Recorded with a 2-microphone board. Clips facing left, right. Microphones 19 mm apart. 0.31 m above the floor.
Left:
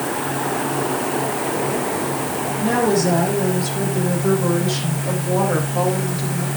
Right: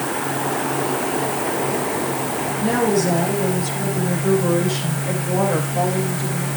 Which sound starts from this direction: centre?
A woman speaking, at 2.6 s.